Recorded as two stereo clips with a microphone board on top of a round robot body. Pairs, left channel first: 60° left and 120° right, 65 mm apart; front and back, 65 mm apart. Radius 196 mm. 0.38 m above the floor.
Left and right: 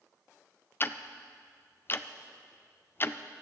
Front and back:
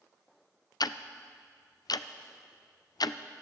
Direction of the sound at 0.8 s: 5° left.